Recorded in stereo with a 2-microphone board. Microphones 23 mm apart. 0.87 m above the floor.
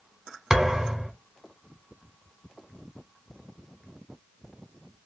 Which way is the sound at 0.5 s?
20° right (ahead or behind).